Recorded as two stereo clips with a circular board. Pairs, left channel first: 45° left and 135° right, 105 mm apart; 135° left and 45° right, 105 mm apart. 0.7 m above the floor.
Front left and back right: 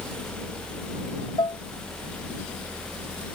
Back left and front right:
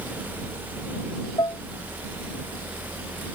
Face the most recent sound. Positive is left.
turn(degrees=90)